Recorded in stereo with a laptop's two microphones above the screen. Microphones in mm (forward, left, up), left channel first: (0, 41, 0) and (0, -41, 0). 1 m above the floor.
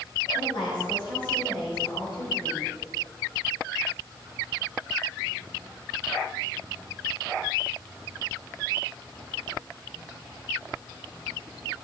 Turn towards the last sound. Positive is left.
turn(degrees=60)  # may be behind; listen again after turning